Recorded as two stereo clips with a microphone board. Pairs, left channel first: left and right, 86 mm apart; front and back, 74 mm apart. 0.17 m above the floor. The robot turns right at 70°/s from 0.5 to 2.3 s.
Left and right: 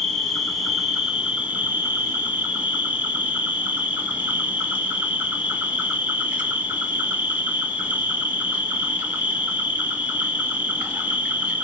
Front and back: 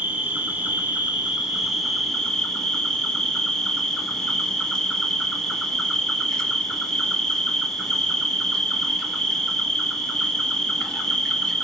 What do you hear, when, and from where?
0.0 s an insect: 170° left, 0.9 m; by 11.6 s 65° right, 0.9 m